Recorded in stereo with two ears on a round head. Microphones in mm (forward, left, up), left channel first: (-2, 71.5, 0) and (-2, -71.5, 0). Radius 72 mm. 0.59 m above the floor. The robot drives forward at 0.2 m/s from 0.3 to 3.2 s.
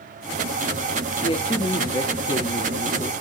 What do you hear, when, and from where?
1.2 s a man speaking: 30° left (ahead or behind), 0.8 m